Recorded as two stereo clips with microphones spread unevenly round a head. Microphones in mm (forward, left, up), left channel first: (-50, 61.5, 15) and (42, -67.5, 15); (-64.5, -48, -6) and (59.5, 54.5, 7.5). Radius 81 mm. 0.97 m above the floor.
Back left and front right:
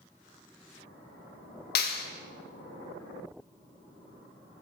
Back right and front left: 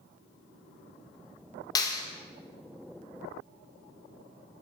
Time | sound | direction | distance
1.8 | a clap | 155° left | 0.7 m